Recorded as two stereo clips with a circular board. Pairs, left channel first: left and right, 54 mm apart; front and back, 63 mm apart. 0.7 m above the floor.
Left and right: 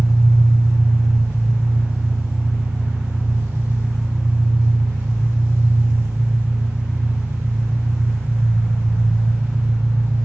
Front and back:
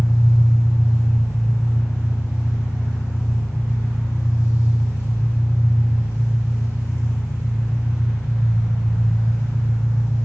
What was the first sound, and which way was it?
An engine running, 45° right.